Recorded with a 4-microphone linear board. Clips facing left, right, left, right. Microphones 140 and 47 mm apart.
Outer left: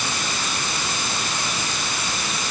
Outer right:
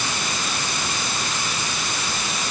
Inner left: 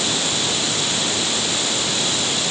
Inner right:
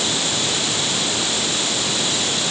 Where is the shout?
I don't hear a shout.